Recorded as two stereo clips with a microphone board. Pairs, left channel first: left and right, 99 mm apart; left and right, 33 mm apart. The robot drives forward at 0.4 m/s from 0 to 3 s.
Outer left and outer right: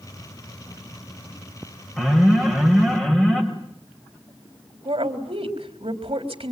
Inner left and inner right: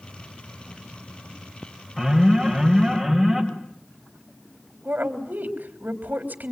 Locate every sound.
2.0 s an alarm: centre (ahead or behind), 6 m
4.8 s a woman speaking: 80° right, 3.5 m